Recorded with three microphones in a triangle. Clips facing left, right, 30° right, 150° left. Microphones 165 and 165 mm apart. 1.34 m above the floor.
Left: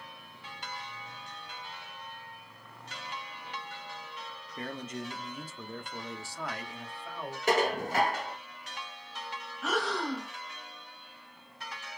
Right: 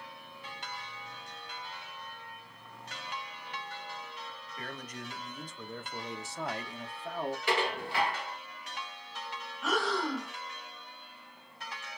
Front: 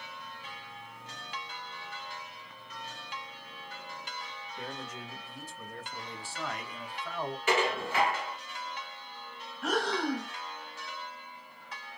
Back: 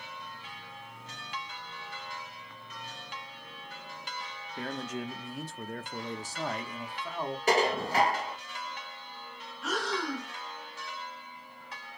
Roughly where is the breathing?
Ahead.